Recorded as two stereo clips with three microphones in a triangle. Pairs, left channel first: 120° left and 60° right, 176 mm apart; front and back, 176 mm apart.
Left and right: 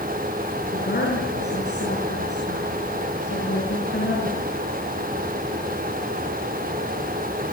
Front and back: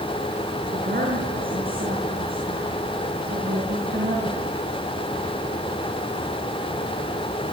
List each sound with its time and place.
0.7 s a woman speaking: 145° left, 7 m